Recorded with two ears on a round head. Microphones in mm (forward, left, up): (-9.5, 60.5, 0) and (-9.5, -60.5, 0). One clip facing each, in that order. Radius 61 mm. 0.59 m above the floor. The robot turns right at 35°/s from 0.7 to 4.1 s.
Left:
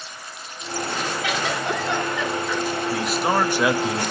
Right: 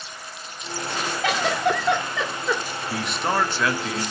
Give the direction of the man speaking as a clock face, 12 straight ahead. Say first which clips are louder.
Left 2 dB; 12 o'clock.